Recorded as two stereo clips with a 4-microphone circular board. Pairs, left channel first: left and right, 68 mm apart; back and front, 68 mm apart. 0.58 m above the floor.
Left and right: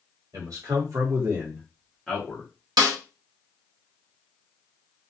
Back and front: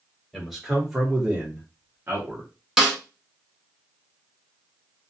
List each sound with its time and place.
0.3 s a man speaking: 95° right, 1.6 m; by 2.5 s 35° left, 1.0 m
2.8 s a snare drum: 85° right, 1.1 m